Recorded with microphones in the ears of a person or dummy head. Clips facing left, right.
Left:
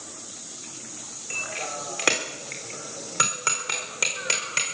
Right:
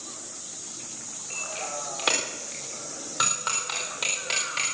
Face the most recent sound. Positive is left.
turn(degrees=50)  # may be behind; listen again after turning